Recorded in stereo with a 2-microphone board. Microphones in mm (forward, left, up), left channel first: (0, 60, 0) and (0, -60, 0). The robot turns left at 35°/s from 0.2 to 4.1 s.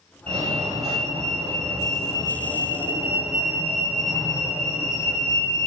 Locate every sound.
0.3 s a fire alarm: 70° right, 4.5 m; by 5.7 s 160° left, 4.5 m